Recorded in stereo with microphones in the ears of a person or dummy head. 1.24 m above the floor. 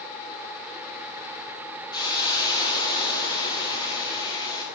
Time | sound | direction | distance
1.9 | a hiss | 25° left (ahead or behind) | 1.1 m